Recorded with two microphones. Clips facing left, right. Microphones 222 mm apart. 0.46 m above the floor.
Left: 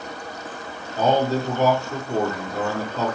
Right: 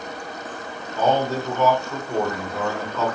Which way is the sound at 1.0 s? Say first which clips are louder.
Left 1 dB; 40° left (ahead or behind).